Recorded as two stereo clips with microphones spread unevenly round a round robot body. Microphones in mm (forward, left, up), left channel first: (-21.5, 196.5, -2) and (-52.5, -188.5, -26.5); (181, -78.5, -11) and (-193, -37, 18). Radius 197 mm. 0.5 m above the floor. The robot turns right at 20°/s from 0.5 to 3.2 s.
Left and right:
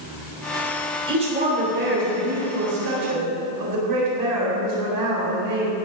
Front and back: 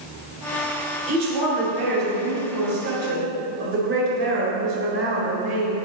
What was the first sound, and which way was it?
A woman speaking, 170° right.